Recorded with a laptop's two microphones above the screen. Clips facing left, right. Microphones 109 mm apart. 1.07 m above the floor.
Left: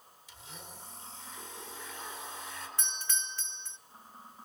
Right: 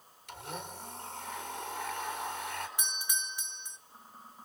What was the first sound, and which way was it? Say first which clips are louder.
A blender: right 9 dB; 65° right (ahead or behind).